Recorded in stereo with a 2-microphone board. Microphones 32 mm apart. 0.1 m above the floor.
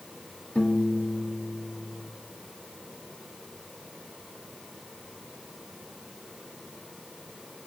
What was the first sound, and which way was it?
A piano, 40° left (ahead or behind).